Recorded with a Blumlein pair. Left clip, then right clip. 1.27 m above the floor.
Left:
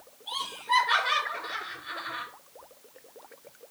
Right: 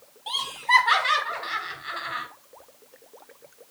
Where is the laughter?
50° right, 1.1 m.